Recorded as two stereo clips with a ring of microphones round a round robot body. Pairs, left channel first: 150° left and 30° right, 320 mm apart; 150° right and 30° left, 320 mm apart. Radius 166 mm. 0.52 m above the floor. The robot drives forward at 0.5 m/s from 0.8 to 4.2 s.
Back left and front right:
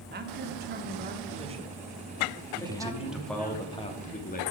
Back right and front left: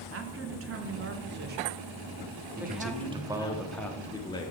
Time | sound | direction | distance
0.1 | a man speaking | 15° left | 1.4 m
2.6 | a man speaking | 25° left | 1.1 m